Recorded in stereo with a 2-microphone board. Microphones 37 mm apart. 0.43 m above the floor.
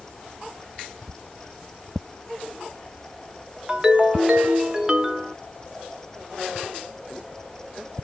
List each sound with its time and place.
3.7 s a ringtone: 20° right (ahead or behind), 0.6 m